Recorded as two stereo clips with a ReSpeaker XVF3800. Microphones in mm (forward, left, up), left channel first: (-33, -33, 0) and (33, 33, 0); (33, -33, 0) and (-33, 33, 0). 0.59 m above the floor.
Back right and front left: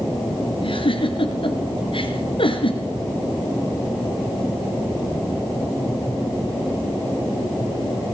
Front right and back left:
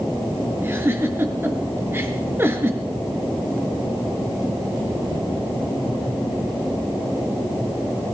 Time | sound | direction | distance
0.6 | a giggle | 160° right | 4 m